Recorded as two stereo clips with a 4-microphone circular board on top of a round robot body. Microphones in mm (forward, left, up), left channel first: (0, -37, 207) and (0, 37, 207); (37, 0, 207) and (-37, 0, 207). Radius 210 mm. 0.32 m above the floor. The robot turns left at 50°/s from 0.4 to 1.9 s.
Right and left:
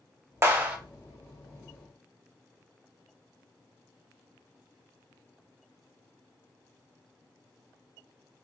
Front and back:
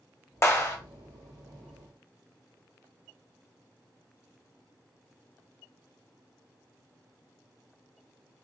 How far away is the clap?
About 1.6 m.